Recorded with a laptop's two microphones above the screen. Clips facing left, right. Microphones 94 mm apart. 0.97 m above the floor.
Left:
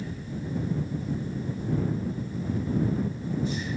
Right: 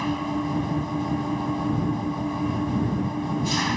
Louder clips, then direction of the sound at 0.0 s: Right 10 dB; 90° right.